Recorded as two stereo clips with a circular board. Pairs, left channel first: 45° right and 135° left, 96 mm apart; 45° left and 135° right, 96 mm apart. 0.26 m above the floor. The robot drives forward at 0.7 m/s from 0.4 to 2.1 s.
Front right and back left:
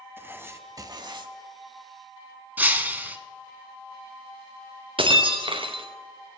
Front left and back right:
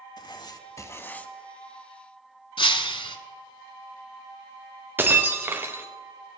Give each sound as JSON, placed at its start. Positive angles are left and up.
{"t": 0.2, "sound": "writing", "azimuth_deg": 75, "distance_m": 0.8}
{"t": 2.6, "sound": "breaking glass", "azimuth_deg": 65, "distance_m": 1.1}
{"t": 5.0, "sound": "breaking glass", "azimuth_deg": 160, "distance_m": 1.8}